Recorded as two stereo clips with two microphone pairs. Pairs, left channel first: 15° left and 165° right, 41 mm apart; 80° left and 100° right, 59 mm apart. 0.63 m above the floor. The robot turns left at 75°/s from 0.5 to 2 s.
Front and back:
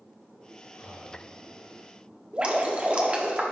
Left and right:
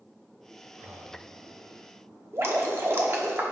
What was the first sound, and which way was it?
Breathing, 30° right.